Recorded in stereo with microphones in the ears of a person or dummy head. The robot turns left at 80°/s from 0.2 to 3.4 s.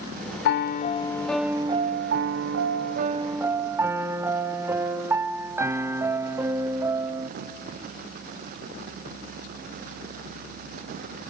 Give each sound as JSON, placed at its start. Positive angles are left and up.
{"t": 0.5, "sound": "a piano", "azimuth_deg": 75, "distance_m": 0.5}